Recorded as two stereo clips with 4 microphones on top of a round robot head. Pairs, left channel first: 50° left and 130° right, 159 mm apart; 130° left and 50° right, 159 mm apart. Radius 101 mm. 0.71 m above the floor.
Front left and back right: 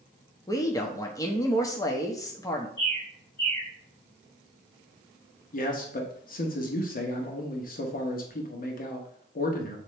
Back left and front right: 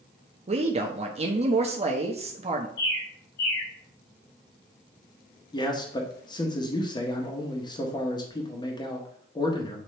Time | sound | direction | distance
0.5 | a man speaking | 15° right | 1.0 m
2.8 | a bird | 135° left | 4 m
5.5 | a man speaking | 70° left | 1.4 m